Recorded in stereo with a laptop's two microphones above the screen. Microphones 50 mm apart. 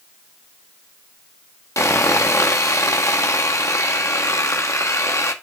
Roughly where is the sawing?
Left.